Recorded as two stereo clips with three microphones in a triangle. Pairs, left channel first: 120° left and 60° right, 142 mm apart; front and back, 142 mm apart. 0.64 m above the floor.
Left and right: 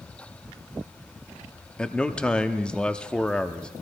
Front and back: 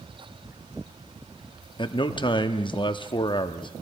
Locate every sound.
1.8 s a man speaking: 40° left, 0.7 m